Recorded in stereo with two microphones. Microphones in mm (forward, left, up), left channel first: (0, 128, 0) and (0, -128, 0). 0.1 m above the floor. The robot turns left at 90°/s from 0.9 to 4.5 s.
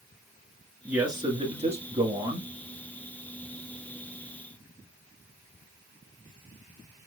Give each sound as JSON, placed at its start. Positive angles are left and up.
{"t": 0.8, "sound": "a man speaking", "side_deg": -10, "distance_m": 1.5}